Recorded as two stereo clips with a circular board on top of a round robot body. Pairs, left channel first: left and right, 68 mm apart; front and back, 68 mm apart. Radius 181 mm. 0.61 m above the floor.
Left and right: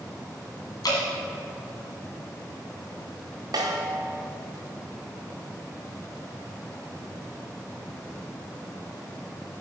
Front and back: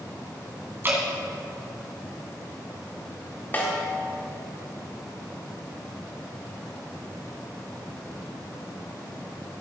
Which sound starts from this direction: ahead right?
A snare drum, at 3.5 s.